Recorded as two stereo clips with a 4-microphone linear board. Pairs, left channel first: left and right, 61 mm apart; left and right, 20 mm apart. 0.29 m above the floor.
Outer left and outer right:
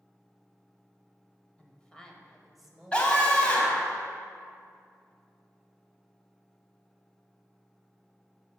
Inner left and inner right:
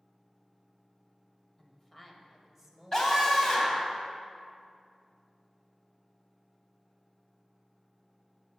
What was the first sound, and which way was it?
A woman speaking, 20° left (ahead or behind).